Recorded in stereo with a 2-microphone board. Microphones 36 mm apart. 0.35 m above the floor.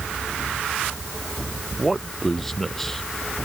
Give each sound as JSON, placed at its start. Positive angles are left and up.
{"t": 1.7, "sound": "a man speaking", "side_deg": 5}